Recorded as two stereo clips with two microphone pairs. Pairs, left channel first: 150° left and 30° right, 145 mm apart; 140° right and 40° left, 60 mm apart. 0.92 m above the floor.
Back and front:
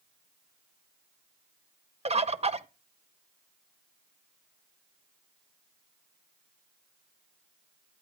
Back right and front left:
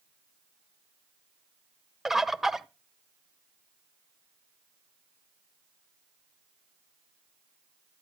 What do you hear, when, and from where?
2.0 s a bird: 40° right, 0.7 m